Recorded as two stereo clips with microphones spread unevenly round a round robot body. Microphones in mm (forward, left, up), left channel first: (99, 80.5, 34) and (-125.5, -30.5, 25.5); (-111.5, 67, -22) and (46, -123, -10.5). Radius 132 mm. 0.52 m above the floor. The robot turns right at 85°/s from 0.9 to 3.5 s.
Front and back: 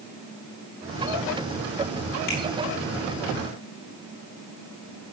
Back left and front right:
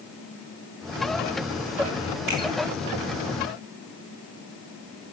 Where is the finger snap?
30° right, 7.5 m; by 2.4 s 20° right, 7.5 m.